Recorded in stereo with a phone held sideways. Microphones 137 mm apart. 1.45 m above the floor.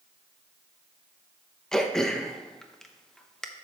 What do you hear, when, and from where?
1.7 s throat clearing: 5° left (ahead or behind), 0.8 m